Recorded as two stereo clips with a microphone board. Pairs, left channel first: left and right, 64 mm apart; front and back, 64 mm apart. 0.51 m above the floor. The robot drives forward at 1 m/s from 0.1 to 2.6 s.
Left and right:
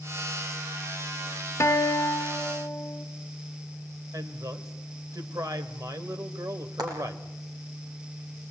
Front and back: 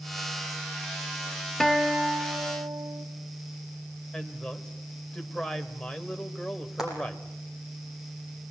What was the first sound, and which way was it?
A guitar, 80° left.